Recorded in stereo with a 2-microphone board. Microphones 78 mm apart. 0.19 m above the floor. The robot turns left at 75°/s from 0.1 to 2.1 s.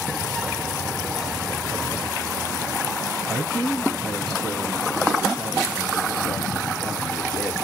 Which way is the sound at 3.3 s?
5° left (ahead or behind).